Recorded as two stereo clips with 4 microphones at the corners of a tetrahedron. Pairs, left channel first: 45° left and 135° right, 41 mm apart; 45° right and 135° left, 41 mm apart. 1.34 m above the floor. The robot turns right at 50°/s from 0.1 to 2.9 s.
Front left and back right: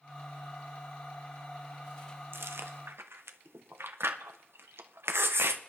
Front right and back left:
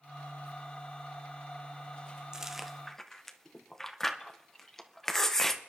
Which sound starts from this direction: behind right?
Chewing, at 2.3 s.